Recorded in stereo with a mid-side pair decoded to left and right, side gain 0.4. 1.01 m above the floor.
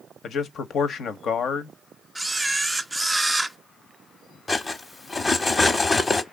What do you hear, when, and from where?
0.2 s a man speaking: 70° left, 0.8 m
2.1 s a camera shutter: 15° right, 0.5 m
4.5 s cutlery clinking: 30° left, 0.7 m